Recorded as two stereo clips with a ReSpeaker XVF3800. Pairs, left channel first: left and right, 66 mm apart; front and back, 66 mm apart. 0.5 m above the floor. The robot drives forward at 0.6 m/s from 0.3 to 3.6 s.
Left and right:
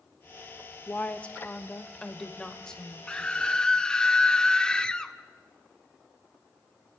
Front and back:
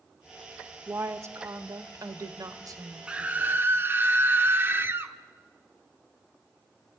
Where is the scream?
135° left, 0.8 m; by 5.1 s 160° left, 0.9 m.